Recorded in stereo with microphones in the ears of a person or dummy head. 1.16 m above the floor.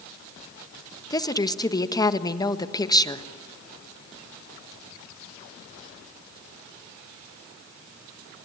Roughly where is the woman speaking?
Left.